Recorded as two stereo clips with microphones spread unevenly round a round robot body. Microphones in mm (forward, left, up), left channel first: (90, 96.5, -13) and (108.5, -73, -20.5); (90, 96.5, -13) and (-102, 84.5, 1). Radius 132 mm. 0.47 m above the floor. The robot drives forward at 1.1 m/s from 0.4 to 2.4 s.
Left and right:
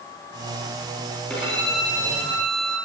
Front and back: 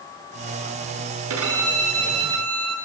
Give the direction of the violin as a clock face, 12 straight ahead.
6 o'clock.